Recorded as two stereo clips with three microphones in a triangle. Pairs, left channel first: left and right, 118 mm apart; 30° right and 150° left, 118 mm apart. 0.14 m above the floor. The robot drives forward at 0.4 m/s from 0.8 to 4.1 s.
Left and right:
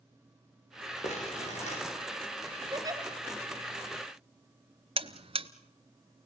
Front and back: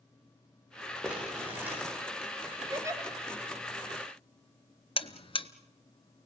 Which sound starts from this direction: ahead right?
A buzzer, at 5.0 s.